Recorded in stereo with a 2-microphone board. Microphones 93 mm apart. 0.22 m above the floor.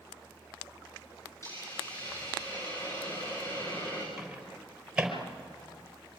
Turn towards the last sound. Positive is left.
turn(degrees=-5)  # may be behind; listen again after turning